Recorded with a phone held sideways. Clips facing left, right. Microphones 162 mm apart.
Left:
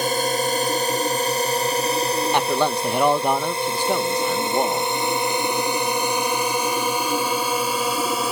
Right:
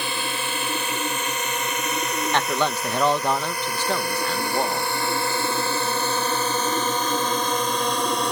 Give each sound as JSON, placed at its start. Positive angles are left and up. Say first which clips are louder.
{"t": 0.0, "sound": "a drone", "louder": "left 8 dB", "side_deg": 45}
{"t": 2.3, "sound": "a man speaking", "louder": "left 1 dB", "side_deg": 15}